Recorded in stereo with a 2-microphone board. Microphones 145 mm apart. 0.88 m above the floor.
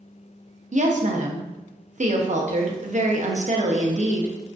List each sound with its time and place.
0.7 s a woman speaking: 60° right (ahead or behind), 0.7 m